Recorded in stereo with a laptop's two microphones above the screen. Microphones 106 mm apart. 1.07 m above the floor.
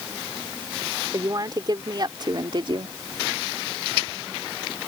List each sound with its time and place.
1.1 s a woman speaking: 35° right (ahead or behind); by 3.0 s 55° right (ahead or behind)